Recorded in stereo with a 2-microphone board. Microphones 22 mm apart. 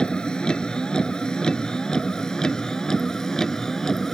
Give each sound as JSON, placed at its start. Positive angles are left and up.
{"t": 0.0, "sound": "a vehicle", "side_deg": 45}